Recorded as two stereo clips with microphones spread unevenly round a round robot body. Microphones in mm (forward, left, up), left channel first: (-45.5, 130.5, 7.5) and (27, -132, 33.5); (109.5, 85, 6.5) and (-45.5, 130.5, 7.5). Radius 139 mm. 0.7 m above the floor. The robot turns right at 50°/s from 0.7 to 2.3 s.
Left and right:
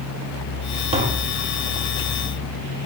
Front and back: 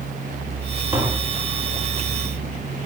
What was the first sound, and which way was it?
Tapping, 135° right.